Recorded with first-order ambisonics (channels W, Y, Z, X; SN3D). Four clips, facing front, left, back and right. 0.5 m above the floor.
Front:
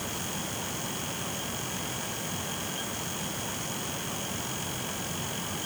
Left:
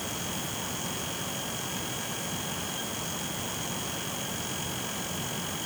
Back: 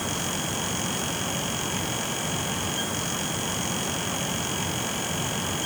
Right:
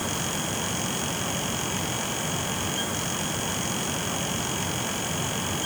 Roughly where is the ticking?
No ticking in this recording.